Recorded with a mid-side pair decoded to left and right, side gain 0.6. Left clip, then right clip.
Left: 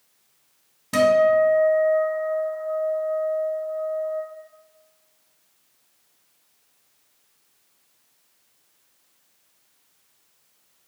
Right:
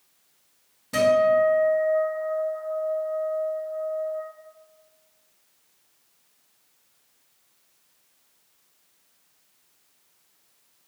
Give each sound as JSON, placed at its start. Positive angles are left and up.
{"t": 0.9, "sound": "a guitar", "azimuth_deg": 35, "distance_m": 1.4}